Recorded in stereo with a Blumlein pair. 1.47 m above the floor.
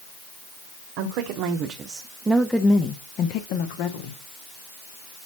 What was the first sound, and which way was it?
A woman speaking, 45° right.